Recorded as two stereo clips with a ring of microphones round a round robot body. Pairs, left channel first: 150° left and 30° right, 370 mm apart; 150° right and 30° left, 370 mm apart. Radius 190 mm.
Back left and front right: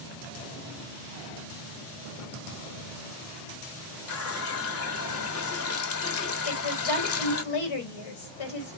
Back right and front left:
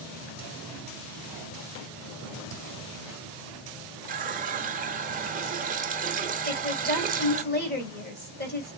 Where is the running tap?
100° left, 1.2 m.